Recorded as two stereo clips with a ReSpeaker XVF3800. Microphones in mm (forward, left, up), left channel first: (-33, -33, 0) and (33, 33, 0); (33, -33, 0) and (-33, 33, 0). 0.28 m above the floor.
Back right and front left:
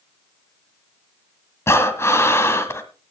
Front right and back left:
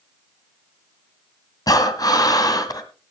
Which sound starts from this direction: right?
Breathing, at 1.7 s.